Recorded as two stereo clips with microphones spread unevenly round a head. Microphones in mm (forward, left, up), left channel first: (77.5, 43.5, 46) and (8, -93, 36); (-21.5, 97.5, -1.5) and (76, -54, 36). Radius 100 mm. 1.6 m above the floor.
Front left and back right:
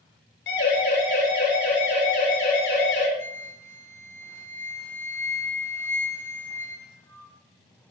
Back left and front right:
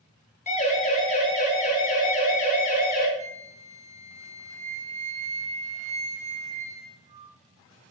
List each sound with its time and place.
0.5 s a siren: 75° left, 9 m; by 3.1 s 80° left, 7 m
3.2 s a flute: 10° right, 2.5 m